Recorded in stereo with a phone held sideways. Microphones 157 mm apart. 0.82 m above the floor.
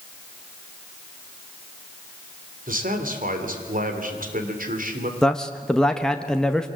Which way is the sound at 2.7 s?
65° right (ahead or behind).